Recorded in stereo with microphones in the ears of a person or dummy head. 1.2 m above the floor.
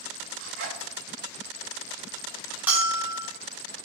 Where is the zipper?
70° right (ahead or behind), 3.5 m.